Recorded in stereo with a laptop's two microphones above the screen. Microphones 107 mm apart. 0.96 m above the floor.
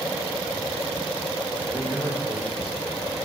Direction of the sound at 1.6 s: 75° left (ahead or behind).